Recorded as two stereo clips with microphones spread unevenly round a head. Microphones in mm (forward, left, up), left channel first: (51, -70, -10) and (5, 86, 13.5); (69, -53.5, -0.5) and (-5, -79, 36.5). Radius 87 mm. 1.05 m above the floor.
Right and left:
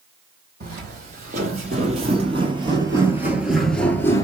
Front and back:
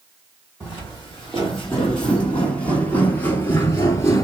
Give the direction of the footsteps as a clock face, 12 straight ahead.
8 o'clock.